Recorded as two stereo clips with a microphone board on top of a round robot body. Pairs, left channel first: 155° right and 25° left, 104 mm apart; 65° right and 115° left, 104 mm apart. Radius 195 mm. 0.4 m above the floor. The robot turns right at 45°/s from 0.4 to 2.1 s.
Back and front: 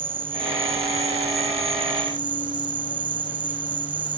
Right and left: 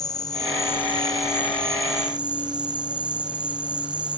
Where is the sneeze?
No sneeze in this recording.